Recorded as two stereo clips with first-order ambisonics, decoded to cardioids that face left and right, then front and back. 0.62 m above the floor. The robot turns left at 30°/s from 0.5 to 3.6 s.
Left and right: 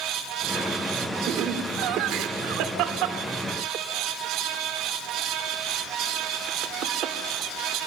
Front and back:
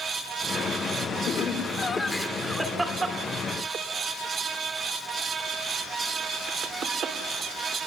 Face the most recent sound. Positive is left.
turn(degrees=-125)